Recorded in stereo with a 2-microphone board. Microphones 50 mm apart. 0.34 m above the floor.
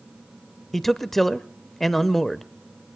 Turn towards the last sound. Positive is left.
turn(degrees=5)  # may be behind; listen again after turning